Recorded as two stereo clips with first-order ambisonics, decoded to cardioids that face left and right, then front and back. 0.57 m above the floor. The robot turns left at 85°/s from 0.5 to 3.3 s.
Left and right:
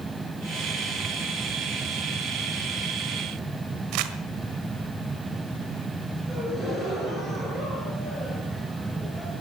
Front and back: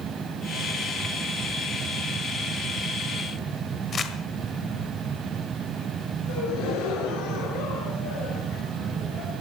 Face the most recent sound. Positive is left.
turn(degrees=-10)